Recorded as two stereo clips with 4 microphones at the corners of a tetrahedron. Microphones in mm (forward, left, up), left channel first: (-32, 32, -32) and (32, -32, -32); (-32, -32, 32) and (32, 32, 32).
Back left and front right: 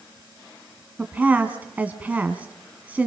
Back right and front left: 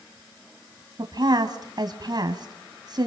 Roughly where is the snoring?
I don't hear snoring.